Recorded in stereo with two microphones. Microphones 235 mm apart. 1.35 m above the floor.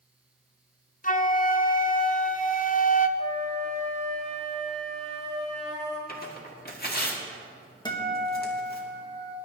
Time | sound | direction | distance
1.0 | a flute | 35° left (ahead or behind) | 0.6 m
3.2 | a flute | 30° left (ahead or behind) | 3 m
6.1 | tearing paper | 40° left (ahead or behind) | 1.9 m
7.8 | a guitar | 20° left (ahead or behind) | 1.9 m